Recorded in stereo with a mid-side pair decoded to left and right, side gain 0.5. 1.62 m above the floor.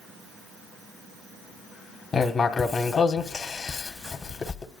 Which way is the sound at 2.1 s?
35° left.